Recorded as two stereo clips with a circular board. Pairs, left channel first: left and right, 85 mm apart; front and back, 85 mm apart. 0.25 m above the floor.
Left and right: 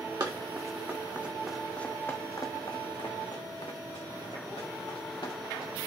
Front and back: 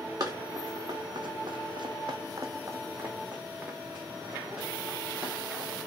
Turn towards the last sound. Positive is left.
turn(degrees=95)